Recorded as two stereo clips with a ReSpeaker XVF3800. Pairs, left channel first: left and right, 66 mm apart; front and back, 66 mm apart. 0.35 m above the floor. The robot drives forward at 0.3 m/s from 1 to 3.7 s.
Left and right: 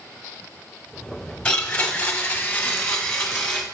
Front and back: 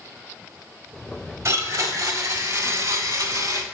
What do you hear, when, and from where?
1.4 s a blender: 155° left, 1.4 m; by 3.6 s 165° left, 2.0 m